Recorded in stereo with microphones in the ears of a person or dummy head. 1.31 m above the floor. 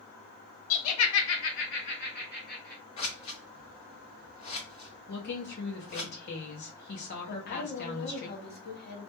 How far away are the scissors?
About 0.6 m.